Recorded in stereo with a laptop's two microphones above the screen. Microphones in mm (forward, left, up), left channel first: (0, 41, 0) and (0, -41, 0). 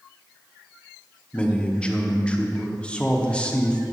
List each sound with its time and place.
1.3 s a man speaking: 15° left (ahead or behind), 0.9 m